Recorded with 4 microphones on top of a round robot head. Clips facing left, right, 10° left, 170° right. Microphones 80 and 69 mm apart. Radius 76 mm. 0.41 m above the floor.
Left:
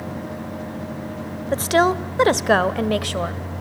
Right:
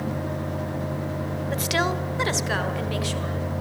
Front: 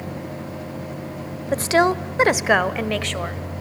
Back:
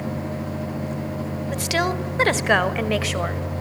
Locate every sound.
1.5 s a woman speaking: 45° left, 1.5 m; by 3.4 s 110° left, 2 m